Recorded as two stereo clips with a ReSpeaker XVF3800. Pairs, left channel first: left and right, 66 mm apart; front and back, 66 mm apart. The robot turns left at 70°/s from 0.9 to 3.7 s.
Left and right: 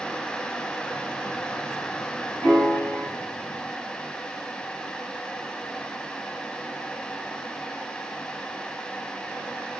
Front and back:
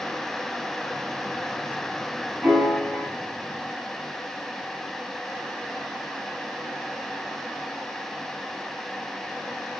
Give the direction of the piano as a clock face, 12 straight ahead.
9 o'clock.